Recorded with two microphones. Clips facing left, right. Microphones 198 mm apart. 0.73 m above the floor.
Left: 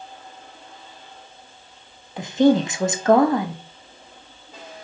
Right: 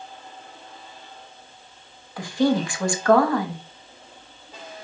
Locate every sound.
2.2 s a woman speaking: 20° left (ahead or behind), 0.7 m